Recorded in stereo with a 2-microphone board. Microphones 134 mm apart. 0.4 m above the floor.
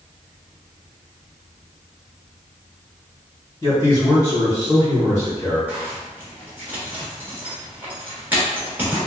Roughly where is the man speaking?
Left.